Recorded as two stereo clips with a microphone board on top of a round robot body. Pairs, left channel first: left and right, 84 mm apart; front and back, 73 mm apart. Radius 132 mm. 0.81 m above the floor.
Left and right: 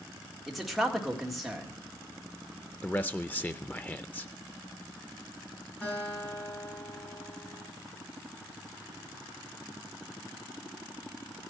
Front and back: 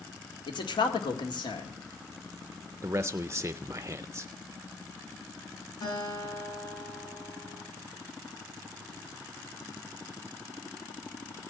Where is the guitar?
15° left, 9.5 m.